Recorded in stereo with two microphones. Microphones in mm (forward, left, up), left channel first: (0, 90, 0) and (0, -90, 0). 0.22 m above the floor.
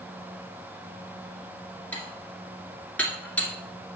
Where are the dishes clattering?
10° left (ahead or behind), 2.5 m.